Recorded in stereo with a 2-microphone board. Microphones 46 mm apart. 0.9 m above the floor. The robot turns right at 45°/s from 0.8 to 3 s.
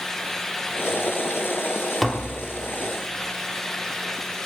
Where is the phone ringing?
No phone ringing in this recording.